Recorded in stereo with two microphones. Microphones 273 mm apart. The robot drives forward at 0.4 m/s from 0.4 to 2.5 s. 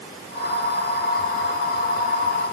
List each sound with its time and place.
Only background noise.